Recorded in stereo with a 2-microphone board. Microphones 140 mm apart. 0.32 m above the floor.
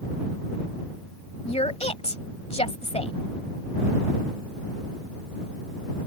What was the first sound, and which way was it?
A woman speaking, 50° left (ahead or behind).